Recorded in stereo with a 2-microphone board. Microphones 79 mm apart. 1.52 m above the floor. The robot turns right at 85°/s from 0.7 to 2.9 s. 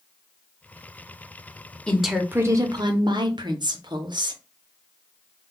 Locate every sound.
1.9 s a woman speaking: 165° left, 0.7 m; by 4.4 s 105° right, 0.7 m